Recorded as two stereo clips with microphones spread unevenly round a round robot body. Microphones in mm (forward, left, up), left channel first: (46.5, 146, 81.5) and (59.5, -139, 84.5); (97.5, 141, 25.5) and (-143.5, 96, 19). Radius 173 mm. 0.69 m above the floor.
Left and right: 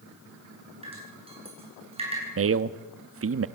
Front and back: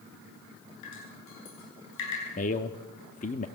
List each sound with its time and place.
0.8 s dripping: 15° right, 8.5 m
2.4 s a man speaking: 50° right, 1.0 m